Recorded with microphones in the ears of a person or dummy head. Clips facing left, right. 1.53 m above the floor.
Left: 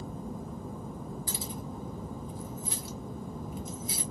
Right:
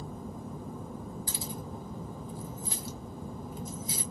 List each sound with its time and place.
1.3 s keys jangling: 40° right (ahead or behind), 0.8 m